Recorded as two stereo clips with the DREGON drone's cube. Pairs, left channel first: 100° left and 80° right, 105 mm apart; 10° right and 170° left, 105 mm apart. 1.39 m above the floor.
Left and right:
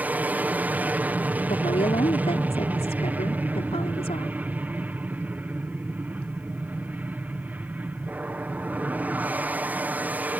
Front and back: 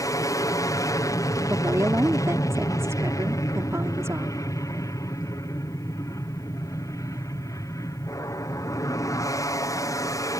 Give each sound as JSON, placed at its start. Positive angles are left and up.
{"t": 0.0, "sound": "an aircraft", "azimuth_deg": -20}
{"t": 1.5, "sound": "a woman speaking", "azimuth_deg": 105}